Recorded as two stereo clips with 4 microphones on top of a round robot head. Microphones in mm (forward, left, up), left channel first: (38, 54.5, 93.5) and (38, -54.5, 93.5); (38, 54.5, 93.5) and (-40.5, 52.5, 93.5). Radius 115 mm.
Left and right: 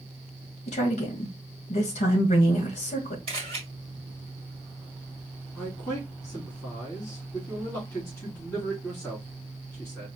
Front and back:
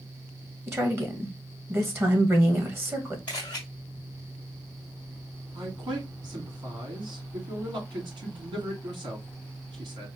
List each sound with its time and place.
0.7 s a woman speaking: 120° left, 1.6 m
3.3 s a camera shutter: 80° right, 1.5 m
5.5 s a man speaking: 155° left, 3 m